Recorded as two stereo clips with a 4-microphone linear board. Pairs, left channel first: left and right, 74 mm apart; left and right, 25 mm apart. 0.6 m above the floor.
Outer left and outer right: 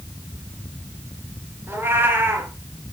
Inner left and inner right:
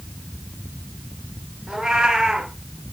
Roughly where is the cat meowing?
Right.